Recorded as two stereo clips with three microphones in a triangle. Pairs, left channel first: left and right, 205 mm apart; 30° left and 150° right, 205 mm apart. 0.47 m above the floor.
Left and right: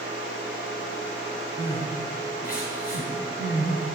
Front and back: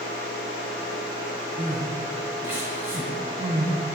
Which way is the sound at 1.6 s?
130° left.